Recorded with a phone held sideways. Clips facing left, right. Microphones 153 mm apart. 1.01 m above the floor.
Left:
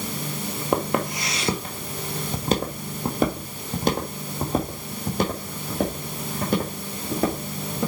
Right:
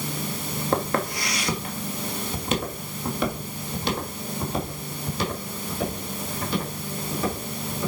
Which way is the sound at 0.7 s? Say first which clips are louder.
Left 2 dB; 15° left (ahead or behind).